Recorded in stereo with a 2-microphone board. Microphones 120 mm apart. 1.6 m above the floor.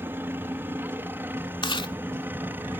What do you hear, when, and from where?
0.0 s a helicopter: 15° right (ahead or behind)
1.6 s chewing: 45° left (ahead or behind)